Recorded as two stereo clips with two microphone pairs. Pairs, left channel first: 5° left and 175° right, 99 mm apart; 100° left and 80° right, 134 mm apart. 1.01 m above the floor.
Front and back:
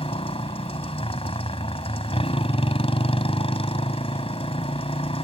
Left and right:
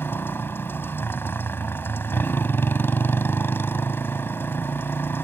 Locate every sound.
0.0 s a motorcycle: 25° left